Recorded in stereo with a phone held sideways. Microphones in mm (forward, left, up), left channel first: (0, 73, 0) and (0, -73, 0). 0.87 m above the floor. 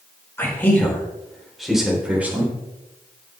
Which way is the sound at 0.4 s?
15° left (ahead or behind).